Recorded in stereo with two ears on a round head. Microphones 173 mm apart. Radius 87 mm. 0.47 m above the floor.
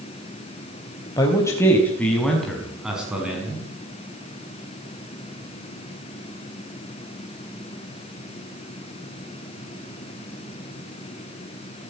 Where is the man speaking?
20° left (ahead or behind), 3.5 m; by 3.7 s 10° right (ahead or behind), 6.5 m.